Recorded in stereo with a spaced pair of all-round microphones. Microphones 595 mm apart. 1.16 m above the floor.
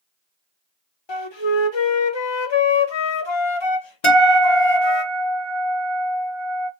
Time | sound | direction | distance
1.1 | a flute | 50° left (ahead or behind) | 0.7 m
4.0 | a guitar | 55° left (ahead or behind) | 1.3 m